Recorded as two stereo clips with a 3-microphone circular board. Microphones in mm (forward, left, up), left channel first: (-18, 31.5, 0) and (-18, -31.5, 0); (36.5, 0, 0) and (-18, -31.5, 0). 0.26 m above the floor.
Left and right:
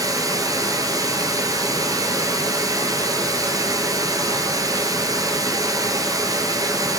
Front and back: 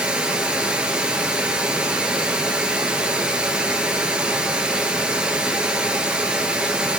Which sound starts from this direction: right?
Running water, at 0.0 s.